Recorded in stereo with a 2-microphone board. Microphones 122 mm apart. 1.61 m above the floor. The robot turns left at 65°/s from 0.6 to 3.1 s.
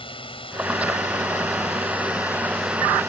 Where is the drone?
135° left; by 3.1 s 30° right.